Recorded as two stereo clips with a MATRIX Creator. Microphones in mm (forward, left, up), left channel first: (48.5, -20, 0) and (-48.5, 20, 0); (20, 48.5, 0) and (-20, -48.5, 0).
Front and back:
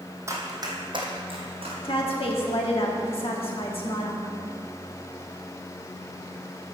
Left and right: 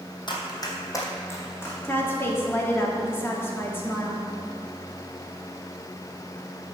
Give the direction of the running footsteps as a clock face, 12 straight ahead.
9 o'clock.